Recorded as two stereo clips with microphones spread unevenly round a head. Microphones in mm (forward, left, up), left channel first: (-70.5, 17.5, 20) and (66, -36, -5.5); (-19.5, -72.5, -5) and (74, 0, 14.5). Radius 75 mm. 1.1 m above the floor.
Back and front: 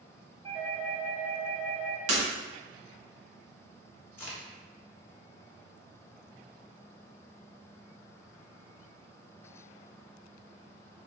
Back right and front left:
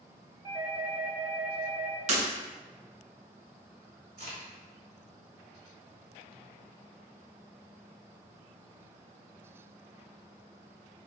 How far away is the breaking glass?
About 0.8 m.